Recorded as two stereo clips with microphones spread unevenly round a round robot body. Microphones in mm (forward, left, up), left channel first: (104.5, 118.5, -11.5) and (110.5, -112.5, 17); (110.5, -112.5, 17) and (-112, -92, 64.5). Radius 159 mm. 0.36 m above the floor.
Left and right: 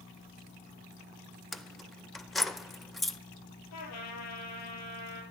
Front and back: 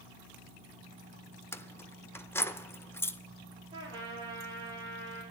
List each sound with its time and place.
1.5 s keys jangling: 20° left, 0.6 m
3.7 s a trumpet: 100° left, 3 m